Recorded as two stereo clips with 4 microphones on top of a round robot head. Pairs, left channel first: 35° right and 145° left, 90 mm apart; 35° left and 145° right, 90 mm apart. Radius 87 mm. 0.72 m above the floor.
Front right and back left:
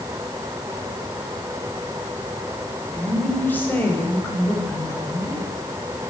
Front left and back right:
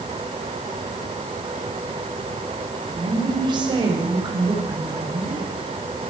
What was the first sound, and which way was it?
A woman speaking, 115° right.